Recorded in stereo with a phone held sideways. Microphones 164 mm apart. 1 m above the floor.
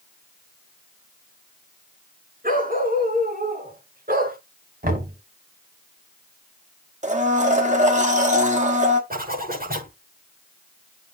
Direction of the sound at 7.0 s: 50° right (ahead or behind).